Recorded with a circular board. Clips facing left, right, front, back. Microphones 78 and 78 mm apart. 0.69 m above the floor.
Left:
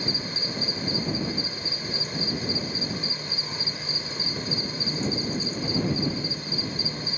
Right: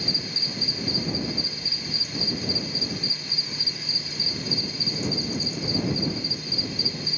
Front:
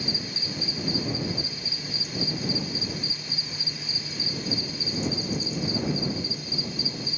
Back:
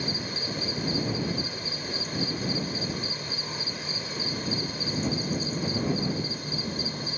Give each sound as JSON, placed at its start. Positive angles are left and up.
{"t": 0.0, "sound": "an insect", "azimuth_deg": 140}